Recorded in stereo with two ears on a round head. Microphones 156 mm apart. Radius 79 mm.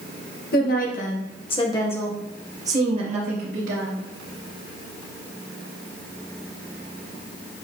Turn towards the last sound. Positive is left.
turn(degrees=-55)  # may be behind; listen again after turning